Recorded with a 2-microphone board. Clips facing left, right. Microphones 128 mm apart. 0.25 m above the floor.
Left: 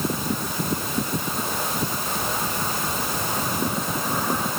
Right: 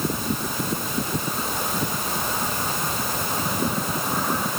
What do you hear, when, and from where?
Only background noise.